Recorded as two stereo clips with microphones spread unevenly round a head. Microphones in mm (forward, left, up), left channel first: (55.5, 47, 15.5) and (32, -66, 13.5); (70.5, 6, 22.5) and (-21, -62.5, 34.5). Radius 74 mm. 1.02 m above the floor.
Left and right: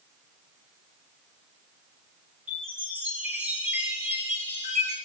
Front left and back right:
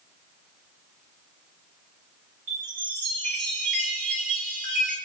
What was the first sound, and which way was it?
A chime, 145° right.